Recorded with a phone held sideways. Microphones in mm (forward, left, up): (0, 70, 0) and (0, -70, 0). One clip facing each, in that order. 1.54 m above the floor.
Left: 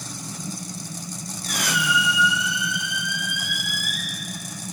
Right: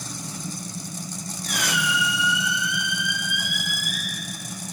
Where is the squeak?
40° left (ahead or behind), 3 m.